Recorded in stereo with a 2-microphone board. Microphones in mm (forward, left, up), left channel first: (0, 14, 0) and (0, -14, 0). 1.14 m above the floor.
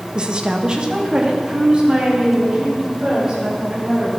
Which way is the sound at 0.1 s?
30° right (ahead or behind).